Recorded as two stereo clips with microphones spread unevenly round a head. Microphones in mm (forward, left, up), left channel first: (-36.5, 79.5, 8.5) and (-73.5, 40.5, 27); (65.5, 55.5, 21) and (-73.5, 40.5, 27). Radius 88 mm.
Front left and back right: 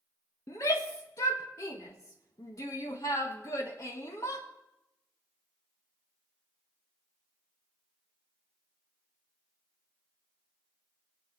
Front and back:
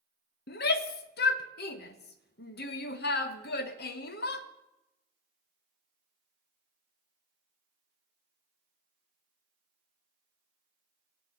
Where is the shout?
5° right, 1.1 m.